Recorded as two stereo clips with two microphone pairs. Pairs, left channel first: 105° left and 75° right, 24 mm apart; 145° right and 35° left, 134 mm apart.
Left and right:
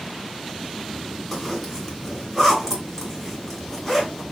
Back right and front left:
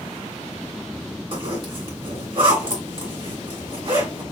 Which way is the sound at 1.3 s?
35° left.